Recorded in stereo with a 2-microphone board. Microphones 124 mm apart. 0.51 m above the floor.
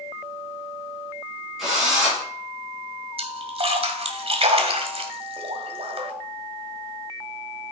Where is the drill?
Centre (ahead or behind), 4.5 m.